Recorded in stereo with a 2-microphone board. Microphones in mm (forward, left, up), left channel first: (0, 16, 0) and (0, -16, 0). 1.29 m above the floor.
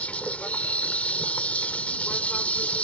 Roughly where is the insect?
Left.